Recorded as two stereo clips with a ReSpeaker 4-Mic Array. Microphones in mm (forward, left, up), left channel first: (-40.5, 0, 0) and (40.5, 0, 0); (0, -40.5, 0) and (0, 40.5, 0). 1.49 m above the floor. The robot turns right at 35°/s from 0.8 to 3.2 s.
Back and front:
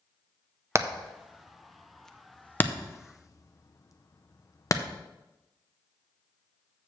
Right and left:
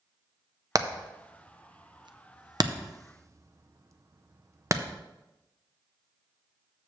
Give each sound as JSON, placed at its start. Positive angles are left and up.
{"t": 0.8, "sound": "hammering", "azimuth_deg": 50, "distance_m": 0.6}